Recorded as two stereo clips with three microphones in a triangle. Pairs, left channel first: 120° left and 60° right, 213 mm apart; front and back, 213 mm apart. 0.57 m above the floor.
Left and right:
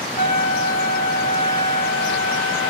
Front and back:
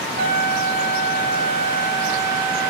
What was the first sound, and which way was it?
A trumpet, 160° left.